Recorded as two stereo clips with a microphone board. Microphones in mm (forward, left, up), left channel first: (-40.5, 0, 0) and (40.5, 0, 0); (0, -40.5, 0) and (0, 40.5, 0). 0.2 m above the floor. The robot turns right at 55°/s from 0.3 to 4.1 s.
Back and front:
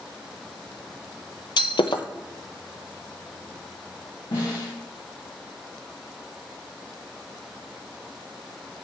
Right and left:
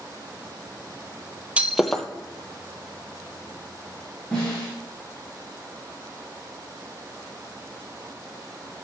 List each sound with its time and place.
1.6 s breaking glass: 165° left, 0.6 m; by 2.0 s 170° right, 0.6 m
4.3 s a snare drum: 165° right, 4 m